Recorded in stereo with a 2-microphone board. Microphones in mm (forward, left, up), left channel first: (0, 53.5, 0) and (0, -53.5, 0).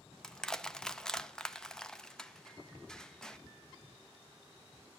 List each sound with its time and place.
0.2 s crushing: 5° left (ahead or behind), 0.5 m